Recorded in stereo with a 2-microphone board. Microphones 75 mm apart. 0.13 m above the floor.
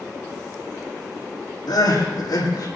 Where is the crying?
80° left, 6.5 m.